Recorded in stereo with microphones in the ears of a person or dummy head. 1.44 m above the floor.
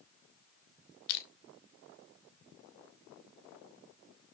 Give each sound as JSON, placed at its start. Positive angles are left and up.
{"t": 1.1, "sound": "crushing", "side_deg": 60, "distance_m": 1.8}